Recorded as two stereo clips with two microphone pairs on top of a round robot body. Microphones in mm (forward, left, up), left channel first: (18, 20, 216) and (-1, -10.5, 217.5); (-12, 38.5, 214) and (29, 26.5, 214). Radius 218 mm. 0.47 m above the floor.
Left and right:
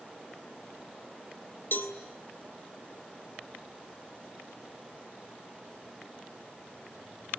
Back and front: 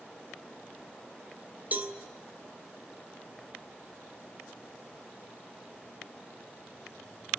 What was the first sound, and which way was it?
A cowbell, 35° left.